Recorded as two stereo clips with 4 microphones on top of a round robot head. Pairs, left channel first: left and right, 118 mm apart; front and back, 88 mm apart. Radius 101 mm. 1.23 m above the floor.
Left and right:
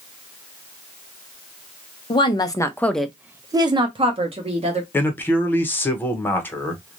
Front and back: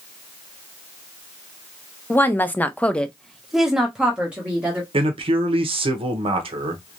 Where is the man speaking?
165° left, 0.8 m.